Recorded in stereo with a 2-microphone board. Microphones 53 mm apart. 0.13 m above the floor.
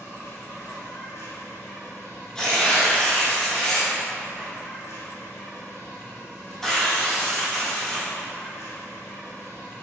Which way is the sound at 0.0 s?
70° left (ahead or behind).